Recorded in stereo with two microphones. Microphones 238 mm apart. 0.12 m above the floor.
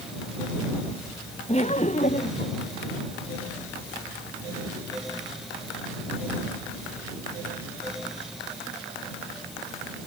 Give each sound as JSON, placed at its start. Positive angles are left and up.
{"t": 1.5, "sound": "laughter", "side_deg": 25}